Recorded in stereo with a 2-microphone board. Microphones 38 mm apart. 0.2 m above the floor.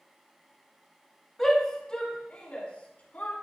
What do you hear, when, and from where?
1.4 s a shout: 10° left (ahead or behind), 1.6 m; by 3.3 s 45° left (ahead or behind), 2 m